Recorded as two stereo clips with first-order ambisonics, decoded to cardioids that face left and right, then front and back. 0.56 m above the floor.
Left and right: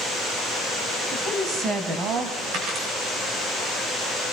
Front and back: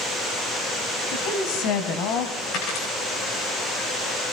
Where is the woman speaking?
20° right, 3.5 m; by 2.4 s 45° right, 3 m.